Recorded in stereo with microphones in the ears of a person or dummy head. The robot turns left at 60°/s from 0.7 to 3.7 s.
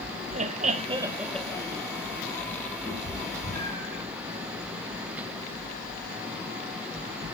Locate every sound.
0.3 s laughter: 145° right, 0.6 m; by 1.8 s 150° left, 0.6 m
2.9 s a cat meowing: 25° right (ahead or behind), 4.5 m; by 4.0 s 70° right (ahead or behind), 4.5 m